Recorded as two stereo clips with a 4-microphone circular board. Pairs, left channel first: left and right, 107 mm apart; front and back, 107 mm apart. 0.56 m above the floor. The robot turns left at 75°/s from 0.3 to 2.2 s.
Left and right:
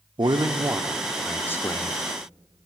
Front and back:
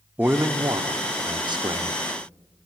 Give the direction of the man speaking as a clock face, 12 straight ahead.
4 o'clock.